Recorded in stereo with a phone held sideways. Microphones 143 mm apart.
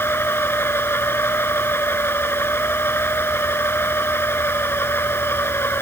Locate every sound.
0.0 s a machine running: 15° left (ahead or behind)